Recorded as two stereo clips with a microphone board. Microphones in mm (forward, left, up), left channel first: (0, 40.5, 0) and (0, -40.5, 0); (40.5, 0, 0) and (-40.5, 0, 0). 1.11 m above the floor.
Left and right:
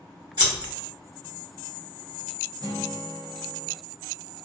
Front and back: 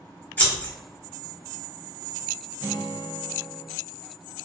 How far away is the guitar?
About 0.7 m.